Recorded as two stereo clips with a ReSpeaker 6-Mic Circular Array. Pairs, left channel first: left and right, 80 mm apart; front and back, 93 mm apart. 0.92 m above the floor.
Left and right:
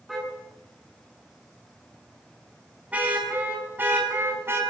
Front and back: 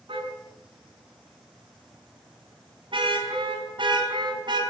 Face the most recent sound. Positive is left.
turn(degrees=-150)